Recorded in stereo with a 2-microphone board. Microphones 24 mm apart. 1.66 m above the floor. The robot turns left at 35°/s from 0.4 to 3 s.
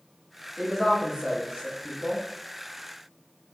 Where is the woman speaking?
25° right (ahead or behind), 0.7 m; by 2.2 s 40° right (ahead or behind), 0.7 m.